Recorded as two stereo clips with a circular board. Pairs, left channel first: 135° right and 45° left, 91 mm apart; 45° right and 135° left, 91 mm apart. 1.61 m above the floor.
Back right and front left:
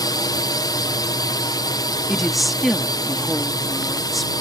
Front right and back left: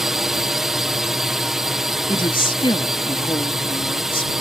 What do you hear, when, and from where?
0.0 s a drone: 140° right
2.1 s a woman speaking: 45° right